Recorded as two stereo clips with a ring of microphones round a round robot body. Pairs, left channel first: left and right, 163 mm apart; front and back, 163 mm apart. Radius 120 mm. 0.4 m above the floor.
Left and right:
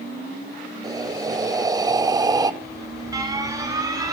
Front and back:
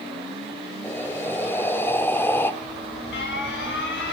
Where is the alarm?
20° right, 6.5 m.